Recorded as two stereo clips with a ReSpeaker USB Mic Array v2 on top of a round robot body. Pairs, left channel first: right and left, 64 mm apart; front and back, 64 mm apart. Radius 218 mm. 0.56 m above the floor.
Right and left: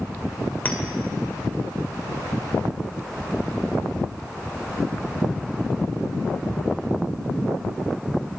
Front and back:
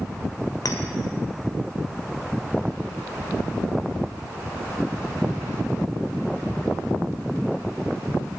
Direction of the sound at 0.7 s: 25° right.